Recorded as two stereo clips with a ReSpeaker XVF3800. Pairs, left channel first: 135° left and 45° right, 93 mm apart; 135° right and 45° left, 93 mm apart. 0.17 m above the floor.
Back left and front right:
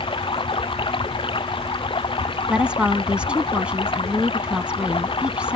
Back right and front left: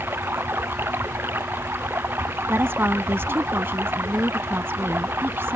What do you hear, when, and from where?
0.0 s running water: 110° left
2.5 s a woman speaking: 20° left